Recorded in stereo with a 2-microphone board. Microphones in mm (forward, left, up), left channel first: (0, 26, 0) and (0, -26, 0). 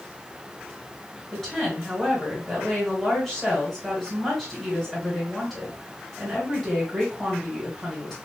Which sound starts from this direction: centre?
A woman speaking, at 1.3 s.